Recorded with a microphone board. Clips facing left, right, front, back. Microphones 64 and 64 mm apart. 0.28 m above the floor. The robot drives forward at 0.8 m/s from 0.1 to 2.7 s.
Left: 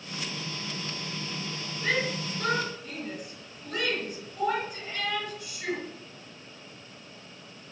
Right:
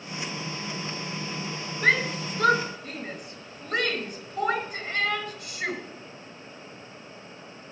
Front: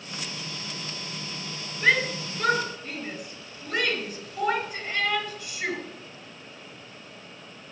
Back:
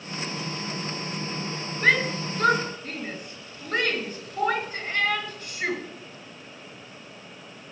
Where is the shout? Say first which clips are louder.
Right 5 dB, back 1 dB; 120° right, 3 m; by 5.8 s 130° right, 3.5 m.